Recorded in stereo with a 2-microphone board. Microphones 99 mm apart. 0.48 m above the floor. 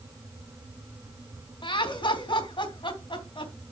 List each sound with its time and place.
1.6 s laughter: 55° left (ahead or behind), 3.5 m